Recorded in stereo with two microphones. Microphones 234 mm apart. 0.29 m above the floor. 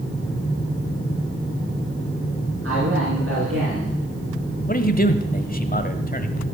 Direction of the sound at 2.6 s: 65° right (ahead or behind).